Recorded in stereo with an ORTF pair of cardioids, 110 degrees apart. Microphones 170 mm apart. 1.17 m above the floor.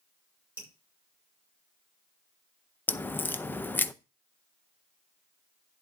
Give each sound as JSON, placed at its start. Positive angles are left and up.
{"t": 0.6, "sound": "dripping", "azimuth_deg": -10, "distance_m": 5.0}
{"t": 2.9, "sound": "a crack", "azimuth_deg": 10, "distance_m": 0.6}